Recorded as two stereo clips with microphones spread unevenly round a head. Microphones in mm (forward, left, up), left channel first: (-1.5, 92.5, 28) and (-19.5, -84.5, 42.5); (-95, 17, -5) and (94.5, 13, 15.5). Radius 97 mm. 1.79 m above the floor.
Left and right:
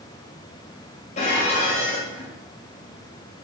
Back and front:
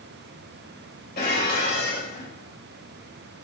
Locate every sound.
1.2 s dishes clattering: 140° left, 2 m